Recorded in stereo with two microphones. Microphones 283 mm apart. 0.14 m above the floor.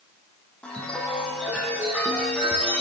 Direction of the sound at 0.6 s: 5° left (ahead or behind).